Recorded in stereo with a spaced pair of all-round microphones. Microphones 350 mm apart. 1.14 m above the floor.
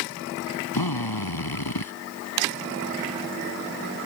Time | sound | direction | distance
0.7 | a drill | 80° left | ?